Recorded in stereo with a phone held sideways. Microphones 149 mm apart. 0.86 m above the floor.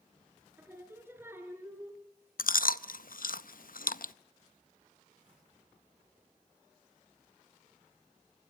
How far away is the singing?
About 3.5 m.